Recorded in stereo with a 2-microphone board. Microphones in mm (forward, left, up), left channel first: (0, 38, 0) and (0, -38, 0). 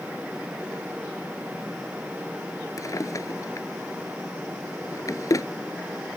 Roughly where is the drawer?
Left.